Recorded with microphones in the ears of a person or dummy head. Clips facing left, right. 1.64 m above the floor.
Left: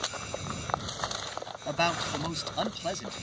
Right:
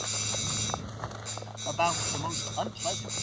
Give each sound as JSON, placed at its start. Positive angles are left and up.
{"t": 0.0, "sound": "a machine running", "side_deg": -75}
{"t": 1.7, "sound": "a man speaking", "side_deg": 20}